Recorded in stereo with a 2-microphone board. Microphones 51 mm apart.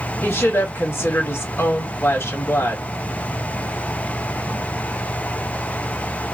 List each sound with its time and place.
0.2 s a woman speaking: 55° left (ahead or behind), 1.6 m